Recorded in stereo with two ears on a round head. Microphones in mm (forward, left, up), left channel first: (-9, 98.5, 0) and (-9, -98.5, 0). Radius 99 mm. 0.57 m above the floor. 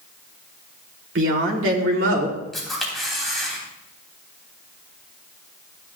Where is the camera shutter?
Centre (ahead or behind), 3 m.